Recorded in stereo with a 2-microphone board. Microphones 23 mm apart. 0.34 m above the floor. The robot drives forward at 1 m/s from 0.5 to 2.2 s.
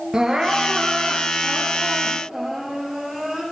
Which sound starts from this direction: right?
Crying, at 0.1 s.